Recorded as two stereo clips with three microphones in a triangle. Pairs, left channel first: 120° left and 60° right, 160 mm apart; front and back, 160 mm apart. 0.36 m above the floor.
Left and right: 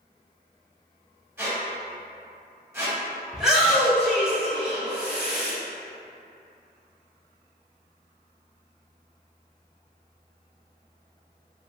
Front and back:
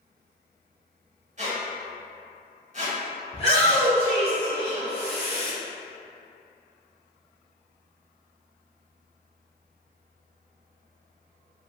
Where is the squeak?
135° right, 0.8 m.